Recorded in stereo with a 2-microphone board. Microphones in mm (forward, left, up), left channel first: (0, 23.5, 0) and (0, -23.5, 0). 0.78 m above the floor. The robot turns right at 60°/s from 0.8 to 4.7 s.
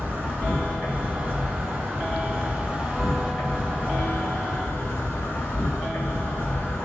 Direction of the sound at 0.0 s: 135° right.